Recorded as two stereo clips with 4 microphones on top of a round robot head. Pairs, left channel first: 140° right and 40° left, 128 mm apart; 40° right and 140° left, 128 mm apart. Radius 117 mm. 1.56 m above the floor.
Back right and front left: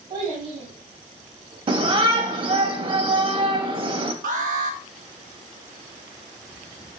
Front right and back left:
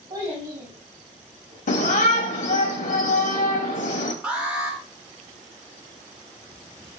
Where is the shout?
15° right, 0.8 m.